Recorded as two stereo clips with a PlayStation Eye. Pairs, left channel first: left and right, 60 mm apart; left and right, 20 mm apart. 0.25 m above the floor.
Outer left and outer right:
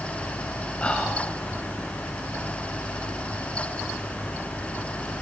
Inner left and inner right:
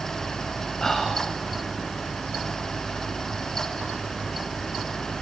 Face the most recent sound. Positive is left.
turn(degrees=20)  # may be behind; listen again after turning